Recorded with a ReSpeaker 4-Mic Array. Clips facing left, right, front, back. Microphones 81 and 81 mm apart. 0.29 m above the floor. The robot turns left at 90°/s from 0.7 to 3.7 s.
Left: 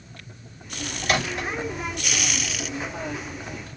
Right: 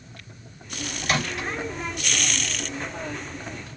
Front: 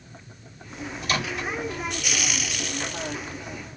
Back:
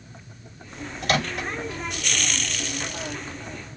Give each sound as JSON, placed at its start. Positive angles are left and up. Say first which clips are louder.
{"t": 1.0, "sound": "a microwave", "louder": "left 2 dB, back 3 dB", "azimuth_deg": -175, "distance_m": 3.0}